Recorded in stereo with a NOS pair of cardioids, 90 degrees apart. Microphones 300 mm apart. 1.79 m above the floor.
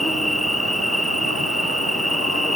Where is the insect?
Straight ahead.